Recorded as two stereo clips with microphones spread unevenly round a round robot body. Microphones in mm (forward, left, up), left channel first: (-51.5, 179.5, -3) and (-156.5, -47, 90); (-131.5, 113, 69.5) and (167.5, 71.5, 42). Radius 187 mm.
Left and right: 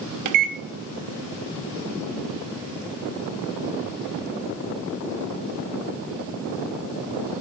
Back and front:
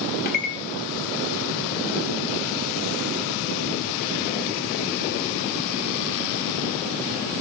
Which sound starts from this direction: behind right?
A microwave, at 0.2 s.